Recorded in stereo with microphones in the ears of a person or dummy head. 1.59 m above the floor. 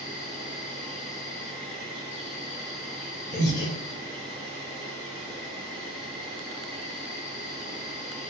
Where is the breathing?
50° left (ahead or behind), 2.0 m.